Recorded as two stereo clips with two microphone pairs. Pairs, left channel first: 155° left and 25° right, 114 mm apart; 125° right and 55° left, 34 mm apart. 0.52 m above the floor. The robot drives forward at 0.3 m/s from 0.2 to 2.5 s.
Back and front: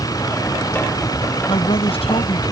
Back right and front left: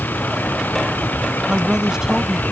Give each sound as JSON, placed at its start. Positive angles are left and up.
{"t": 0.0, "sound": "a vehicle", "azimuth_deg": -145}
{"t": 1.5, "sound": "a woman speaking", "azimuth_deg": 125}